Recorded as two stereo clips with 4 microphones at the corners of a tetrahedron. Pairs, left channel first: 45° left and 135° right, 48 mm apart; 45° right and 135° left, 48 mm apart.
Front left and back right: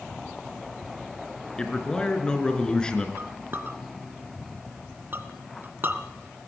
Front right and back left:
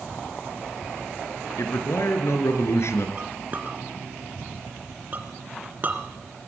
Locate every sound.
1.6 s a man speaking: 25° right, 4 m
3.2 s a clink: 175° right, 2 m